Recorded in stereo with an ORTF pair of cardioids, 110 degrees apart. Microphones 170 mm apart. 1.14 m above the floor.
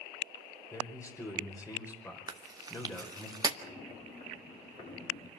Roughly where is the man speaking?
Ahead.